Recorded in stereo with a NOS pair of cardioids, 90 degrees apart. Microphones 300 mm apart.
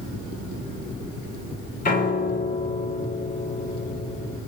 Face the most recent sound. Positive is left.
turn(degrees=25)